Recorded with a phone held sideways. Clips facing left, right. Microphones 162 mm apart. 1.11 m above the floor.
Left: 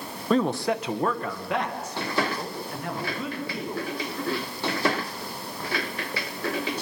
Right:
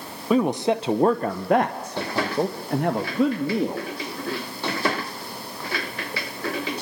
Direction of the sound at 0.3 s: 10° right (ahead or behind).